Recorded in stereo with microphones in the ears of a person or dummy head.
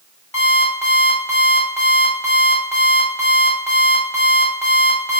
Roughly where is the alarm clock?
Centre.